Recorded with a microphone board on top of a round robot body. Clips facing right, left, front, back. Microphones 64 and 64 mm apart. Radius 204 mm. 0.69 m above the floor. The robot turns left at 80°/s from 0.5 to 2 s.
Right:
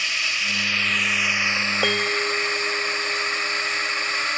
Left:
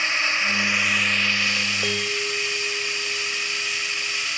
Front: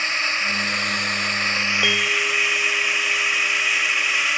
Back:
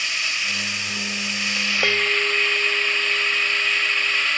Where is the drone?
40° left; by 4.4 s 80° right.